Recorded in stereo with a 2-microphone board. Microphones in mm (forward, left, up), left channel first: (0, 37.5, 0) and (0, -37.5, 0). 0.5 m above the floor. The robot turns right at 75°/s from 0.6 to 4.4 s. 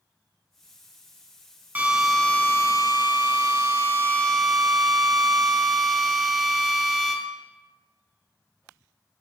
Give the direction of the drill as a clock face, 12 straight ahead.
1 o'clock.